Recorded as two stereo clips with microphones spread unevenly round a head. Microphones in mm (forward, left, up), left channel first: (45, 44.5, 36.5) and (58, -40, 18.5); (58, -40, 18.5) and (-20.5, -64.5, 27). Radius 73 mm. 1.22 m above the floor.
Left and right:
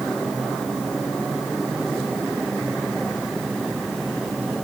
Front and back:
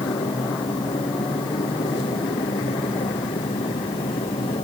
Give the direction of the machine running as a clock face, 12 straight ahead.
12 o'clock.